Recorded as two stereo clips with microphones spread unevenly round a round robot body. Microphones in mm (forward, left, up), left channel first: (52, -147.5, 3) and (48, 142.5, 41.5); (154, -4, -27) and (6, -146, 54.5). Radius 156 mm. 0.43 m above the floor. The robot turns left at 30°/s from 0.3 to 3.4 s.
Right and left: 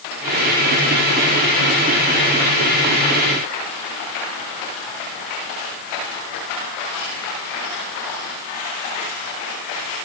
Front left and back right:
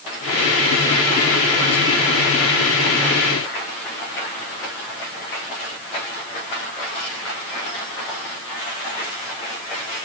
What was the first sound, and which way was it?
Only background noise.